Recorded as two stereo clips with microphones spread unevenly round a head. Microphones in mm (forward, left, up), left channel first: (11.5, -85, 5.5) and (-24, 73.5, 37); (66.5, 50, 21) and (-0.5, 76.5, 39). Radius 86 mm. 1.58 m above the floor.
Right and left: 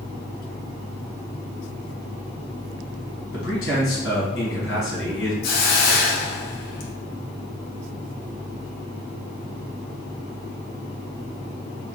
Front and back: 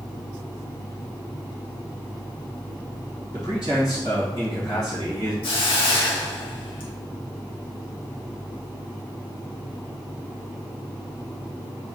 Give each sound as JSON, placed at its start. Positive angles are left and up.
{"t": 3.3, "sound": "a man speaking", "azimuth_deg": -85, "distance_m": 1.5}
{"t": 5.4, "sound": "a hiss", "azimuth_deg": -40, "distance_m": 0.6}